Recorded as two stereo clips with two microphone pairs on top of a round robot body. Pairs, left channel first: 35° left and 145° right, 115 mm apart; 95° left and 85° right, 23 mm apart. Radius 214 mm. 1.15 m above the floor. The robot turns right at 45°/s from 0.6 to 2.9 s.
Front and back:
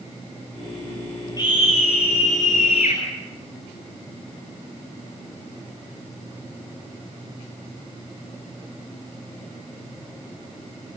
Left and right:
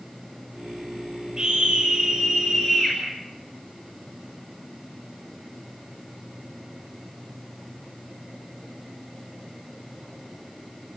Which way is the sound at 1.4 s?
25° right.